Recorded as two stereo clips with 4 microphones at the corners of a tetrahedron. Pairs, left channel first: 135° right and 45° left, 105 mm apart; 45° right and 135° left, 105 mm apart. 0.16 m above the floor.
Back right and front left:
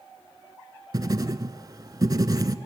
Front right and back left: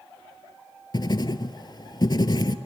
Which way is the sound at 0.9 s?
5° right.